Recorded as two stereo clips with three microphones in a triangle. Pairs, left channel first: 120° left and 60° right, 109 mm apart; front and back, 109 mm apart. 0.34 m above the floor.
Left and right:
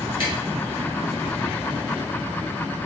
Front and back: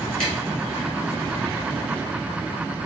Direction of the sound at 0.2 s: 80° left.